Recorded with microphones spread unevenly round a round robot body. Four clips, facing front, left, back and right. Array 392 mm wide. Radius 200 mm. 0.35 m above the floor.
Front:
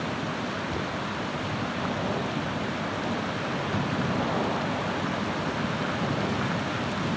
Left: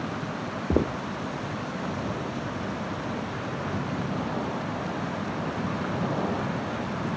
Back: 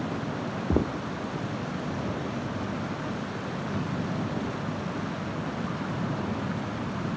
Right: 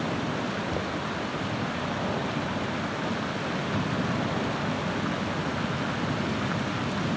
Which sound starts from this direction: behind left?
Footsteps, at 0.7 s.